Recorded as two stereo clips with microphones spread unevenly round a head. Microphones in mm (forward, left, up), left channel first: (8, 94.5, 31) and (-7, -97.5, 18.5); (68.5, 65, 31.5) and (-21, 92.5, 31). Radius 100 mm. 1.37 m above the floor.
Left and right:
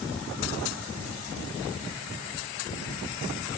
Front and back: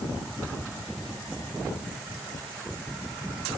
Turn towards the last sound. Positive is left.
No sound to turn to.